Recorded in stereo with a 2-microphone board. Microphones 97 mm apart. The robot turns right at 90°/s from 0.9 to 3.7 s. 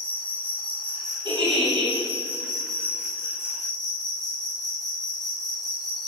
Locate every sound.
0.0 s an insect: 160° left, 0.9 m; by 6.1 s 55° left, 0.9 m
1.2 s a giggle: 135° right, 2 m; by 1.9 s 70° right, 2 m